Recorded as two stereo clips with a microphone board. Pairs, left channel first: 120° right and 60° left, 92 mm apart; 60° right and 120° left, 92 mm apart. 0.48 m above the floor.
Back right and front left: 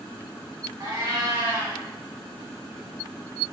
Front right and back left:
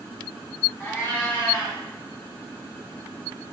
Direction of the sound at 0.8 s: 10° left.